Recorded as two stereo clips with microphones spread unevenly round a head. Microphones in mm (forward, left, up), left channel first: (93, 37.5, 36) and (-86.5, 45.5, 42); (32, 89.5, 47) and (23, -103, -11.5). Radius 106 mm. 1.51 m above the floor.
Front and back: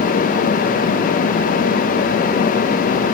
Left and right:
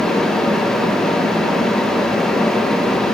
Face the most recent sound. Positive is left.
No sound to turn to.